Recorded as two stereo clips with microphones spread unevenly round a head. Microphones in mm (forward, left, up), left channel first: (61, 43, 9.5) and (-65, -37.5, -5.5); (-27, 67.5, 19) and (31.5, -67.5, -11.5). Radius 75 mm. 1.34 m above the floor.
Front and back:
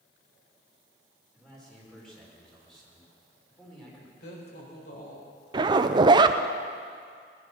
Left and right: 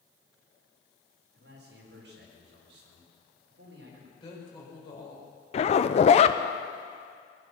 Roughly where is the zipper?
Behind.